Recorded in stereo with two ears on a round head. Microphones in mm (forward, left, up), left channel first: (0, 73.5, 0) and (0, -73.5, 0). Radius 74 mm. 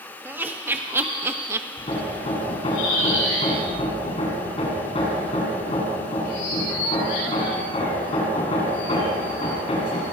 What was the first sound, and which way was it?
Laughter, 15° right (ahead or behind).